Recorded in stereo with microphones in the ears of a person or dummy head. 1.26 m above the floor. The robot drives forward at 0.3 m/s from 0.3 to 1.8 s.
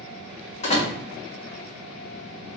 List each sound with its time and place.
0.6 s a door slam: 35° left (ahead or behind), 1.2 m; by 0.9 s 30° left (ahead or behind), 1.3 m